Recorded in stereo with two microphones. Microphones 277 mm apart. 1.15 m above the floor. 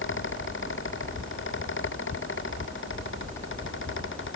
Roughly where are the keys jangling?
I don't hear keys jangling.